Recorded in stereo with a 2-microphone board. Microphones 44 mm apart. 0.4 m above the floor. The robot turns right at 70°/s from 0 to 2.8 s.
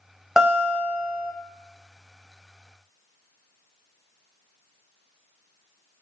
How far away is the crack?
No crack in this recording.